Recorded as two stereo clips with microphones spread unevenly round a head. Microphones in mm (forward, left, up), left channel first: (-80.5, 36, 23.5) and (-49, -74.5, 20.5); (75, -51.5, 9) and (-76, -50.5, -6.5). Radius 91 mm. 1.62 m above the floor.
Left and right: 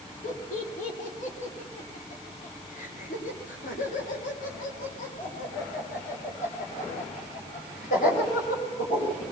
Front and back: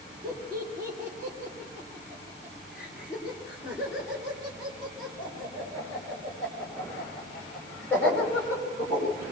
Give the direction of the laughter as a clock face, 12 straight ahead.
8 o'clock.